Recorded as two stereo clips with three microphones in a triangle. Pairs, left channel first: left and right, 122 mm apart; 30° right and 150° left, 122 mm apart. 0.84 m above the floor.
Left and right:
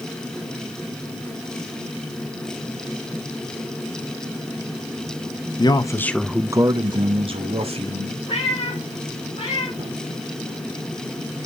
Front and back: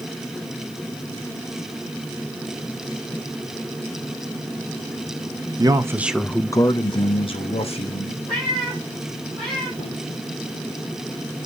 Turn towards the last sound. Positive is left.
turn(degrees=-60)